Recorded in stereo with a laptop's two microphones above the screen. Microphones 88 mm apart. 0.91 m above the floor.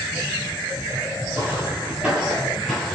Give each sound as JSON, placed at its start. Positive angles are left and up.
{"t": 1.3, "sound": "footsteps", "side_deg": -25, "distance_m": 1.1}